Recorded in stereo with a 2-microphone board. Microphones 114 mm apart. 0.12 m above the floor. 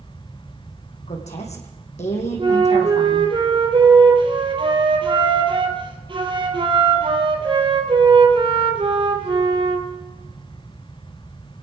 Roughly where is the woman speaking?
Left.